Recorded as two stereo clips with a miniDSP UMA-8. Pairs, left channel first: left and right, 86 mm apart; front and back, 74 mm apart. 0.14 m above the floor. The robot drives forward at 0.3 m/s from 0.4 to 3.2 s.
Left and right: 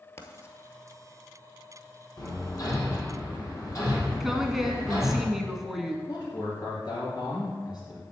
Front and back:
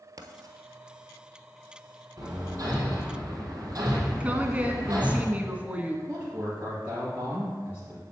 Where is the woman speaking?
170° right, 1.0 m.